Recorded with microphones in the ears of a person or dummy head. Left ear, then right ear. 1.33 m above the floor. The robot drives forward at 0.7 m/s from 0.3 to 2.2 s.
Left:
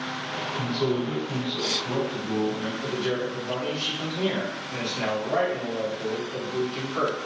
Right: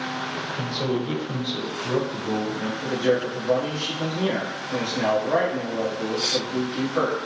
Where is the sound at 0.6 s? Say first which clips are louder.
Left 1 dB; 35° right (ahead or behind), 1.1 m; by 2.7 s 60° right (ahead or behind), 0.7 m.